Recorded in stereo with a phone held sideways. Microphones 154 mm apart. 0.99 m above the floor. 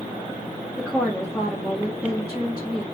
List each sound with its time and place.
0.8 s a woman speaking: 5° right (ahead or behind), 2.0 m